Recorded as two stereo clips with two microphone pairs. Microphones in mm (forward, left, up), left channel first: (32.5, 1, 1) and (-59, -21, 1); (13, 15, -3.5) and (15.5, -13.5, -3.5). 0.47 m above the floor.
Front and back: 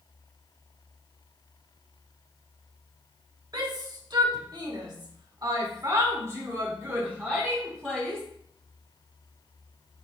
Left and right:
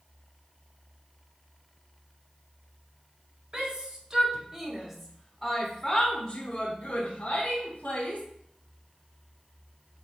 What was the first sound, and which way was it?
A shout, 135° right.